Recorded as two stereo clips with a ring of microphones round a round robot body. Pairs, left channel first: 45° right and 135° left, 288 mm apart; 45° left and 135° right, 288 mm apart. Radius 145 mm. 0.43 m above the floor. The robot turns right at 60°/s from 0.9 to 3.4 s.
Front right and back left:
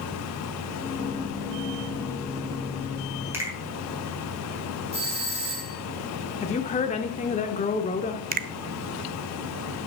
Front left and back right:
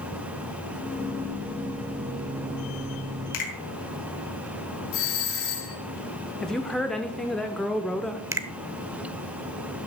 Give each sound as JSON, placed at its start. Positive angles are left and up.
{"t": 3.3, "sound": "a finger snap", "azimuth_deg": 50, "distance_m": 3.0}
{"t": 4.9, "sound": "a doorbell", "azimuth_deg": 65, "distance_m": 3.0}
{"t": 6.4, "sound": "a woman speaking", "azimuth_deg": -40, "distance_m": 0.8}
{"t": 8.3, "sound": "a finger snap", "azimuth_deg": 155, "distance_m": 0.6}